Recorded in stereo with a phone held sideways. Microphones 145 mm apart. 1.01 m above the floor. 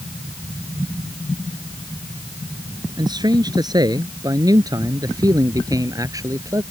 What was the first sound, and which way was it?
A man speaking, 30° right (ahead or behind).